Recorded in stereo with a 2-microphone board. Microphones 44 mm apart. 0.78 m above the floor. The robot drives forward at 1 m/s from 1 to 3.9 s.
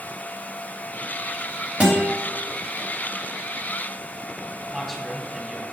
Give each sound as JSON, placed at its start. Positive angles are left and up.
{"t": 1.8, "sound": "a guitar", "side_deg": -25, "distance_m": 3.0}
{"t": 4.7, "sound": "a man speaking", "side_deg": -10, "distance_m": 3.0}